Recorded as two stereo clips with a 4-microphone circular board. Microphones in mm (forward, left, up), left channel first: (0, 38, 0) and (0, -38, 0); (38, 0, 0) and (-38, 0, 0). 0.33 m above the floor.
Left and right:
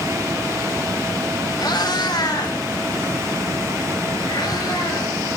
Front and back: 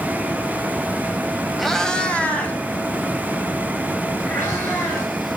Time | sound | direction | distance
1.6 | a cat meowing | 90° left | 0.6 m